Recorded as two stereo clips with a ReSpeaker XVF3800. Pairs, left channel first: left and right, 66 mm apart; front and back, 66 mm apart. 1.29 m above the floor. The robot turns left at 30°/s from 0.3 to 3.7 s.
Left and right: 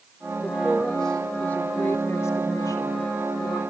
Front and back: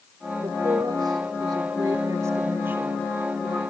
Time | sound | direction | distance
0.4 | a woman speaking | 165° right | 3 m